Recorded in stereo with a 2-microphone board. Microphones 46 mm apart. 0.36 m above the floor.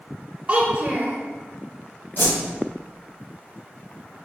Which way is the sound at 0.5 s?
30° right (ahead or behind).